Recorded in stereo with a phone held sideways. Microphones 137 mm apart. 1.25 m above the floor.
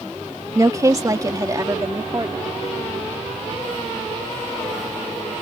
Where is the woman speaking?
25° right (ahead or behind); by 2.5 s 30° right (ahead or behind).